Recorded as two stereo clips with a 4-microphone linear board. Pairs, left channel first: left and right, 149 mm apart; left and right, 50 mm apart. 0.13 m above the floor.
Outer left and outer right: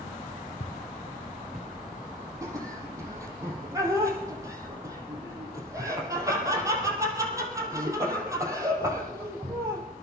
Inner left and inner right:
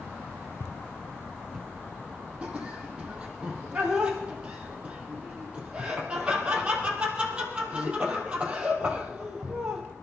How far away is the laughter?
About 4 m.